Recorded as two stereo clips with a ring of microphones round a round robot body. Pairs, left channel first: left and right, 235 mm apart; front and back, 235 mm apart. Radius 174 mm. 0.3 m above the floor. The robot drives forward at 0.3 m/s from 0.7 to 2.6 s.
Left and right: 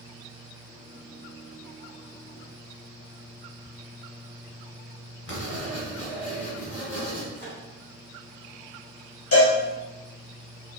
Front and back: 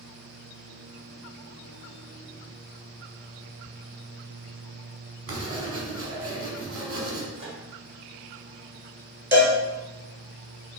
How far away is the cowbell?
About 2 m.